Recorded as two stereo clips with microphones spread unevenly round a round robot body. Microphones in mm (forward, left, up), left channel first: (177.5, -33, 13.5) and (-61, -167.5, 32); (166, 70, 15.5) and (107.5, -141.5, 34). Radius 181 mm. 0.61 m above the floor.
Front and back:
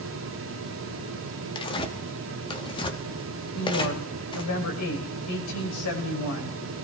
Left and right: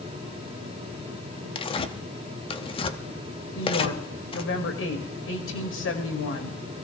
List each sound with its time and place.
1.6 s tearing paper: 70° left, 0.7 m
3.5 s a woman speaking: 60° left, 2.5 m